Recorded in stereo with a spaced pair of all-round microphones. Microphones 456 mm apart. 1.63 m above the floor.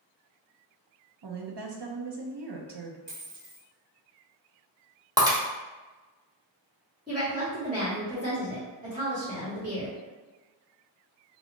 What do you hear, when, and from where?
1.2 s a woman speaking: 60° right (ahead or behind), 0.7 m
3.1 s a dropped coin: 25° right (ahead or behind), 1.2 m
5.2 s breaking glass: 10° right (ahead or behind), 0.8 m
7.1 s a woman speaking: 20° right (ahead or behind), 1.5 m